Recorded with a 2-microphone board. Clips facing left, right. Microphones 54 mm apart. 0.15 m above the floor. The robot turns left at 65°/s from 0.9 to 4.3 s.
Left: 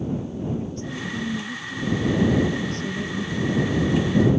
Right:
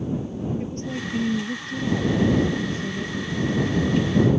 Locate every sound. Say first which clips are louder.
0.6 s a woman speaking: right 1 dB; 50° right; by 4.3 s 90° left